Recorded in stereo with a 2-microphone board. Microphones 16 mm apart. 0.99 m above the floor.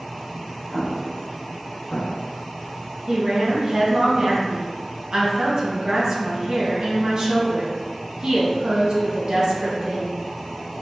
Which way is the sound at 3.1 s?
50° right (ahead or behind).